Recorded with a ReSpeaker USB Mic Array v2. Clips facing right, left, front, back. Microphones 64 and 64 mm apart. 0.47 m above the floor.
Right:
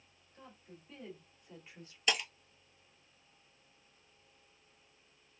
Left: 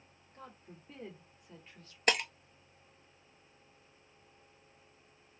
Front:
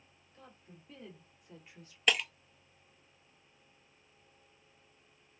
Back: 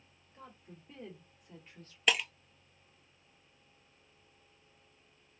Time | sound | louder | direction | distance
0.3 | a woman speaking | left 3 dB, back 3 dB | 115° left | 1.6 m
2.1 | breaking glass | left 4 dB, even | 90° left | 0.6 m